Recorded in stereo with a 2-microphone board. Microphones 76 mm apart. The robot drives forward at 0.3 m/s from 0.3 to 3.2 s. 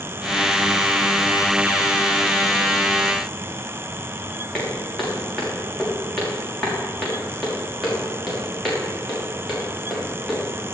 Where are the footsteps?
5° left (ahead or behind), 5 m.